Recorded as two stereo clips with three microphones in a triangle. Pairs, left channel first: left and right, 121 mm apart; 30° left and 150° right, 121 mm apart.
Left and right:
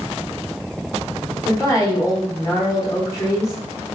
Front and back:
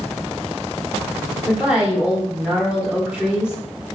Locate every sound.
1.5 s a woman speaking: 135° left, 1.2 m